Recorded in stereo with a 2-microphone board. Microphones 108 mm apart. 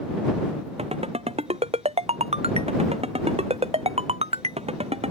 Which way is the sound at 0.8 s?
75° right (ahead or behind).